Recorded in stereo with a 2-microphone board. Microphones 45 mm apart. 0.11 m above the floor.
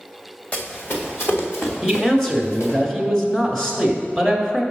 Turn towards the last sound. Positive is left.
turn(degrees=15)  # may be behind; listen again after turning